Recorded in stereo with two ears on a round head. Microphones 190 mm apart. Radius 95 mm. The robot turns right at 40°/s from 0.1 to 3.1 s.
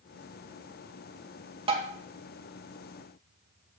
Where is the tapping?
25° right (ahead or behind), 2 m; by 1.9 s 35° right (ahead or behind), 2 m.